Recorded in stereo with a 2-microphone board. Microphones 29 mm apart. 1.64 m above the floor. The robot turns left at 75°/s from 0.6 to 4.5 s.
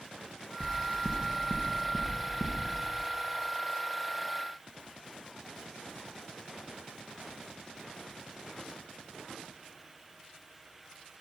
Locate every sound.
0.6 s knocking: 45° right (ahead or behind), 0.9 m; by 2.6 s 35° left (ahead or behind), 0.9 m